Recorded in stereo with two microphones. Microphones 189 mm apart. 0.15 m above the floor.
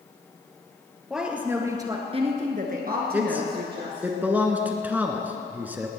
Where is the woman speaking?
5° right (ahead or behind), 3 m; by 4.1 s 60° right (ahead or behind), 3.5 m.